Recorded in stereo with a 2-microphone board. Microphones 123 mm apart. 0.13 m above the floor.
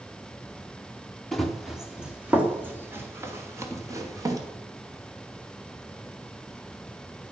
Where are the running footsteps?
Centre (ahead or behind), 2.5 m; by 4.4 s 30° right (ahead or behind), 3.5 m.